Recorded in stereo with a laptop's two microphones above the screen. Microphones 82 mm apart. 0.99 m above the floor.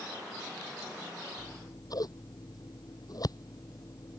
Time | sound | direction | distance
1.4 | scissors | 55° left (ahead or behind) | ?